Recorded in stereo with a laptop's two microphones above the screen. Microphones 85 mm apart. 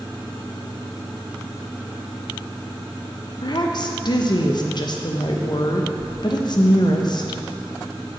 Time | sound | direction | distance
3.4 | a woman speaking | 50° left (ahead or behind) | 0.6 m